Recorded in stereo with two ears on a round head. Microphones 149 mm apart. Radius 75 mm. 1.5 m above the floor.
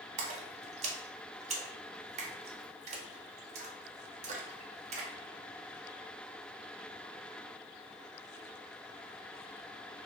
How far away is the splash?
About 0.5 m.